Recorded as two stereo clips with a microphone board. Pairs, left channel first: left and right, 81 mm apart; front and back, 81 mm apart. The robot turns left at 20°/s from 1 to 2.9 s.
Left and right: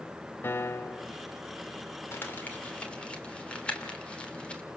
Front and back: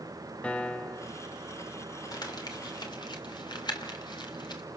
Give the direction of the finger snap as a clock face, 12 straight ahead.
No finger snap in this recording.